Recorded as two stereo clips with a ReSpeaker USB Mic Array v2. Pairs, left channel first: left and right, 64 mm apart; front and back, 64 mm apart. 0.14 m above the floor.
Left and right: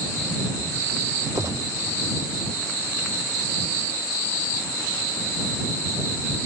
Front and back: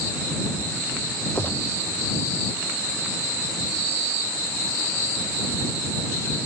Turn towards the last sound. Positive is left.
turn(degrees=-55)